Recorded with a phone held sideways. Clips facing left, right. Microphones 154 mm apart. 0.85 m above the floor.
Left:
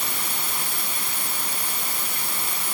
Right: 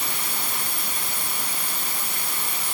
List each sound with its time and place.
Only background noise.